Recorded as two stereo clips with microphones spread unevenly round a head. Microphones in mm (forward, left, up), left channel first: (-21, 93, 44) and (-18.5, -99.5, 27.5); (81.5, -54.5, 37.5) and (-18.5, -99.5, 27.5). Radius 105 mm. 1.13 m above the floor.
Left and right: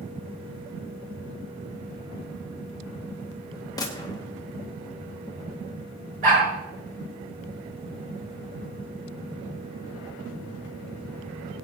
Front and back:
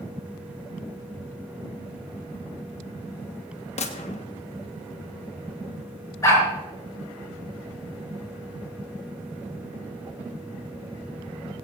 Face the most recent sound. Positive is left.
turn(degrees=-35)